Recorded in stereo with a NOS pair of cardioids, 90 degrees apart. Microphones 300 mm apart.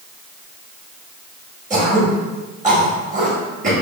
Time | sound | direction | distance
1.7 | throat clearing | 25° right | 1.4 m